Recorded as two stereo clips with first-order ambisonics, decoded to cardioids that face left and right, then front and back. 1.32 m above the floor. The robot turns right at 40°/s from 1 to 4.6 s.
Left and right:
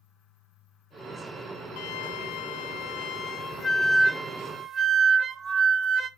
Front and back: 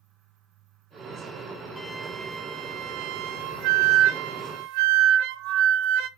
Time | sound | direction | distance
1.8 | a flute | 90° left | 0.8 m